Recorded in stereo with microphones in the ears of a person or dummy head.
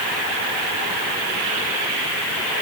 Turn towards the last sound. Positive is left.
No sound to turn to.